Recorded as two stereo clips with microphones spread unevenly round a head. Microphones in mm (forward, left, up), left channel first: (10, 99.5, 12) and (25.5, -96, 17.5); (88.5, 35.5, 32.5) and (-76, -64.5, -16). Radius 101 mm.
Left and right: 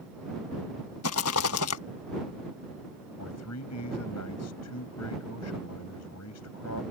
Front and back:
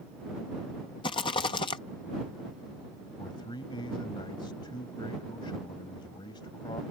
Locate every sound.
1.0 s a rattle: 95° left
3.2 s a man speaking: 100° left